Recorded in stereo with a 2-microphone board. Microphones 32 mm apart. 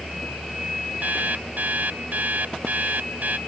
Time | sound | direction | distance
1.0 | an alarm clock | 65° right (ahead or behind) | ?